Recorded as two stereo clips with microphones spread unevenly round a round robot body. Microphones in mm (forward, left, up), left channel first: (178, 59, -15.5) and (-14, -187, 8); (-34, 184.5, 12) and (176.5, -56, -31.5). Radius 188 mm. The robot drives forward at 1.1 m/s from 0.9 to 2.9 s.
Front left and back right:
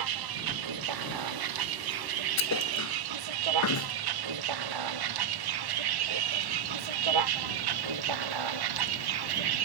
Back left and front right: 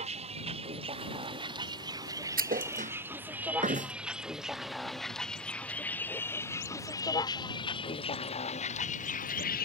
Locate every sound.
0.0 s a vehicle: 125° right; by 9.7 s 160° right
2.4 s a thud: 15° left; by 3.9 s 20° left